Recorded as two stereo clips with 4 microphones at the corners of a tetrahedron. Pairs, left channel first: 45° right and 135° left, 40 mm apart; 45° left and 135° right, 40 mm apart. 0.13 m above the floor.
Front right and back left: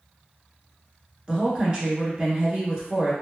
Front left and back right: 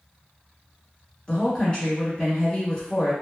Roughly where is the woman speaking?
Left.